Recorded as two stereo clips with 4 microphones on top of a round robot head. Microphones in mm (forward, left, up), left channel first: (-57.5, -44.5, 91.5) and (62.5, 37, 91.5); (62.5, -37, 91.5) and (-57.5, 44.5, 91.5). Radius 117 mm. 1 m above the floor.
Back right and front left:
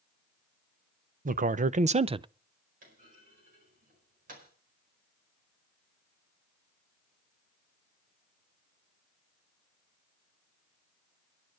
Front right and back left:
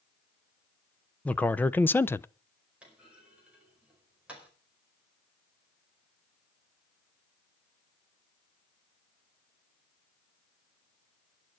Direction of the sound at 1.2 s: 45° left.